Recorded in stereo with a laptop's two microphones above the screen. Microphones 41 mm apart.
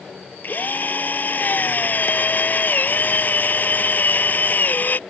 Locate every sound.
0.4 s a drill: 45° left (ahead or behind)